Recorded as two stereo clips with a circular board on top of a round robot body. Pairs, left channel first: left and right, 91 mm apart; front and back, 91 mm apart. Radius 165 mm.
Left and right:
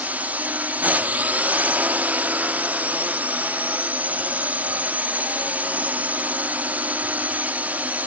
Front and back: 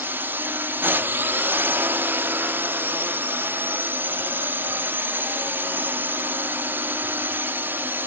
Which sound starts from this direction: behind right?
A drone, at 0.0 s.